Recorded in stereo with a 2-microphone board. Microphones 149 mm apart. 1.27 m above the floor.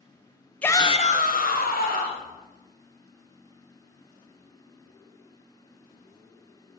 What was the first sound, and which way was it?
A shout, 10° left (ahead or behind).